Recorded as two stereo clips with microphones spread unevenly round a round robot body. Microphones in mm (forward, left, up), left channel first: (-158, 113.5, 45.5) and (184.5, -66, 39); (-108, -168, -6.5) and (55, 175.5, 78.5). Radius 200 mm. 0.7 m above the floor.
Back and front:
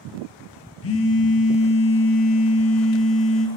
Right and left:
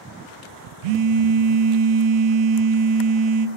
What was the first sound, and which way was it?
A phone buzzing, 95° left.